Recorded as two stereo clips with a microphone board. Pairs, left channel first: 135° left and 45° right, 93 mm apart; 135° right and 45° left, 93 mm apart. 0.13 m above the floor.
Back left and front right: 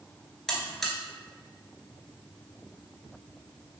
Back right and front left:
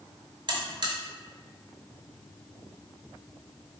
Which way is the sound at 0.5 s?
50° left.